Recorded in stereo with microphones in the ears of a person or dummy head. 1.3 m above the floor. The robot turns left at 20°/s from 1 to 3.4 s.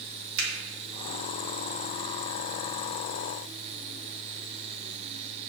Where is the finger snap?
80° right, 0.9 m.